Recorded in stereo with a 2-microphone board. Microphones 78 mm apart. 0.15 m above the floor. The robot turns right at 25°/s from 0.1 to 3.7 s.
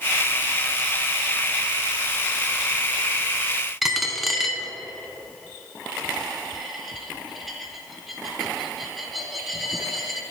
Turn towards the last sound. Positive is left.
turn(degrees=0)  # may be behind; listen again after turning